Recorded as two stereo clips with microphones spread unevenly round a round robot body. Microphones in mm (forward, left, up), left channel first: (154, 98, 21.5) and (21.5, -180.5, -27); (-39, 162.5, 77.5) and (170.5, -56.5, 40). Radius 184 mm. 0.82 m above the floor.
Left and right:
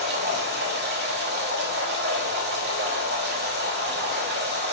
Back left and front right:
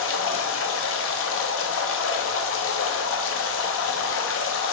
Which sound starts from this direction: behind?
Running water, at 0.0 s.